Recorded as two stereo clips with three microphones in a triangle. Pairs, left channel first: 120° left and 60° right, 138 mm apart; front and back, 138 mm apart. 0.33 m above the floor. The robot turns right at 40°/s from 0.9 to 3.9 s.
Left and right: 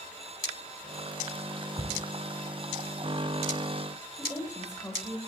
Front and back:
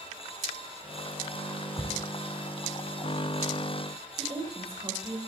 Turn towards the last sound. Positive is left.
turn(degrees=175)